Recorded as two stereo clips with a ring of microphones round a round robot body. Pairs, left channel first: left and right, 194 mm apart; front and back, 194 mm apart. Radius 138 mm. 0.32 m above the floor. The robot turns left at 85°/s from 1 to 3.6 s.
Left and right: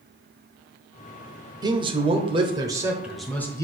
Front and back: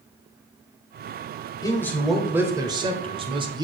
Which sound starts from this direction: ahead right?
A man speaking, at 1.6 s.